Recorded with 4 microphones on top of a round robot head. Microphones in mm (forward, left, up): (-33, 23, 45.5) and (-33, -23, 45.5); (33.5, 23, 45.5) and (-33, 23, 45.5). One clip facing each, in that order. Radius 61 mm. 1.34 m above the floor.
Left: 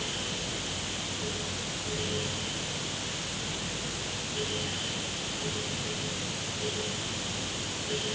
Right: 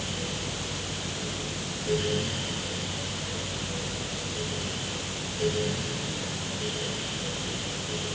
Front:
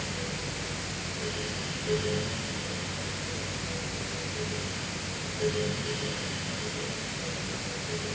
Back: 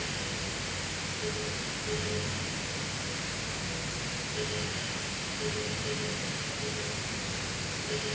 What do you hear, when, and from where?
Only background noise.